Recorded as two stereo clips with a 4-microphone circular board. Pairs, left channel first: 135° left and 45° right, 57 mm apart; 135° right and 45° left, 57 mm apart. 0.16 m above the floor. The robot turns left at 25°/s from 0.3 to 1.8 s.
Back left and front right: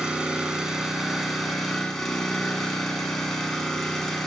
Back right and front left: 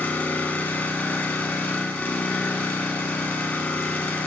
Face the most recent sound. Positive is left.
turn(degrees=-145)